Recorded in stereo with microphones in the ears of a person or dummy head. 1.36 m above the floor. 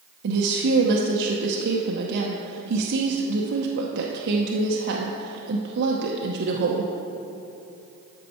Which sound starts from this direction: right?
A woman speaking, at 0.2 s.